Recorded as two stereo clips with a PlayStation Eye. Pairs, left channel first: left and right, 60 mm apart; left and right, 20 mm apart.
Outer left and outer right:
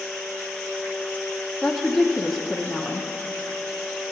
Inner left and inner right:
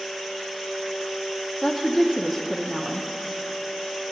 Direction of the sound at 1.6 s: Centre (ahead or behind).